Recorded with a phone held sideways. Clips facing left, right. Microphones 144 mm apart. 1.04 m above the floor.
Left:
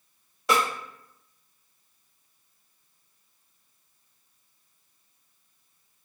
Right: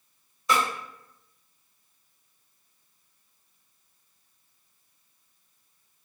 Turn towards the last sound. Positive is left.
turn(degrees=80)